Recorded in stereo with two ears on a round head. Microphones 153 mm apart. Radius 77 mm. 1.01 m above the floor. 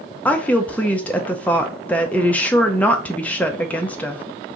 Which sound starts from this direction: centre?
A woman speaking, at 0.2 s.